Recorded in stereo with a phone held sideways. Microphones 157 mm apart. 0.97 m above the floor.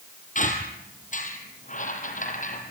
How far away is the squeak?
About 3.5 m.